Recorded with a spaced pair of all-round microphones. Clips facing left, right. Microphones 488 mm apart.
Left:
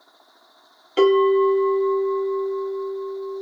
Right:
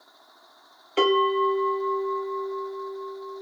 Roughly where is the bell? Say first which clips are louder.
Left 7 dB; left.